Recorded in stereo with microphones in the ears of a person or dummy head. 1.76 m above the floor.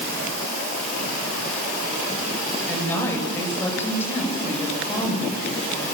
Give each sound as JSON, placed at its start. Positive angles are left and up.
{"t": 2.7, "sound": "a woman speaking", "side_deg": 15, "distance_m": 9.0}